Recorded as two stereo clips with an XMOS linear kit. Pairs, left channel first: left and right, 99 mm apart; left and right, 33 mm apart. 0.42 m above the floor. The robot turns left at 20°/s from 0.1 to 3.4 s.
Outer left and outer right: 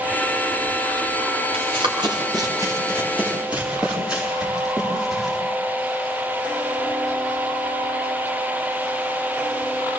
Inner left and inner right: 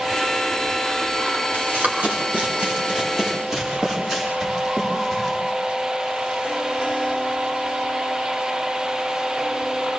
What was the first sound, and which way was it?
Running footsteps, 65° right (ahead or behind).